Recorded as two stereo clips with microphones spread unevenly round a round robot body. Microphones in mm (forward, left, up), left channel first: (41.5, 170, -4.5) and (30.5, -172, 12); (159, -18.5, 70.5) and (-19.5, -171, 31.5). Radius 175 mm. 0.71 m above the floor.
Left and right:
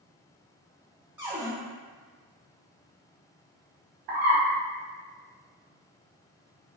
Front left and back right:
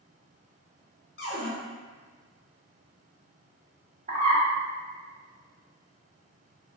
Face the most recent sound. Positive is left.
turn(degrees=-75)